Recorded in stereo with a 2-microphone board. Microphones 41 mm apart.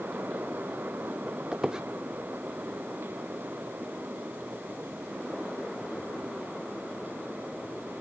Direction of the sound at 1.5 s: 15° right (ahead or behind).